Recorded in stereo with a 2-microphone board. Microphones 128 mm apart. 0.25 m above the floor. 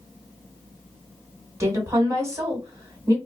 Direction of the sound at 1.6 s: 25° right (ahead or behind).